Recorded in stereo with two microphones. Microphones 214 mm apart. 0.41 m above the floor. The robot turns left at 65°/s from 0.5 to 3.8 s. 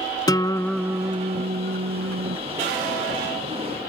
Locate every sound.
0.3 s a guitar: 15° left; by 2.4 s 110° right